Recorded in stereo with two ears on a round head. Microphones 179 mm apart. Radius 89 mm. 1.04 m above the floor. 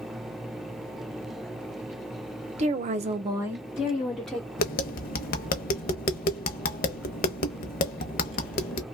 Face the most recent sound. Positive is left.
turn(degrees=50)  # may be behind; listen again after turning